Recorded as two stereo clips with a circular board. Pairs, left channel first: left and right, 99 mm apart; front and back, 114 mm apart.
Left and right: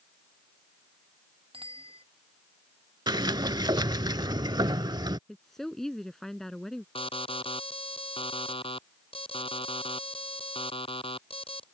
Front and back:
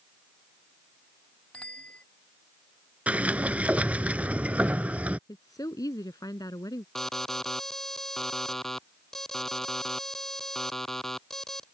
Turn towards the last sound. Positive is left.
turn(degrees=85)